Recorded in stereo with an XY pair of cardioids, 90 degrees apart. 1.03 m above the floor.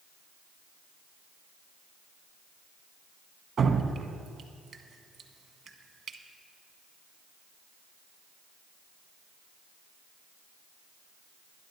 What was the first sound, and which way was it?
Dripping, 55° right.